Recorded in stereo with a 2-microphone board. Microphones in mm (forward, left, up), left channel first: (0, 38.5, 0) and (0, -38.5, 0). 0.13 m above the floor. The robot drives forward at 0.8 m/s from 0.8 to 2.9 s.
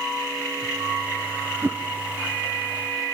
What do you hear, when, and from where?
1.6 s a whoosh: 25° right (ahead or behind), 1.5 m